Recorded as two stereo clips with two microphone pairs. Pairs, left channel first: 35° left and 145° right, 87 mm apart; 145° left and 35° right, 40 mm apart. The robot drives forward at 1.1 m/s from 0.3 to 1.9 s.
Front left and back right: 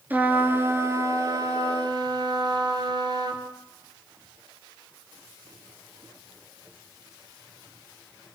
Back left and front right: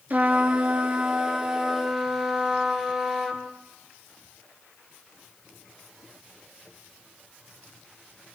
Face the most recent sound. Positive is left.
turn(degrees=-115)